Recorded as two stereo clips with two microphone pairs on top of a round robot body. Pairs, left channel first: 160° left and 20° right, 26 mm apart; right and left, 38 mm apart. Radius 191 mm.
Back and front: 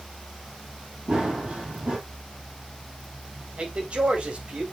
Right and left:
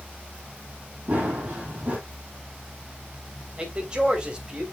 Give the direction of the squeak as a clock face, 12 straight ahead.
No squeak in this recording.